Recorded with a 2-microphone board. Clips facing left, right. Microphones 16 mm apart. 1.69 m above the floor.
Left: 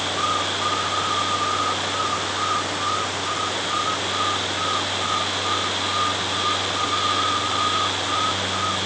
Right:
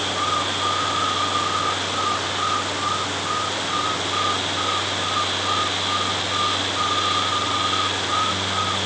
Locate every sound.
Only background noise.